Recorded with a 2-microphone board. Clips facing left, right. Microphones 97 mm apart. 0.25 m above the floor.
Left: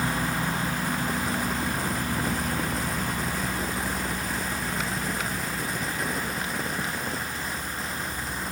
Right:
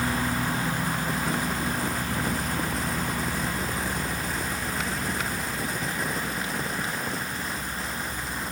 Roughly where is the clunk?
I don't hear a clunk.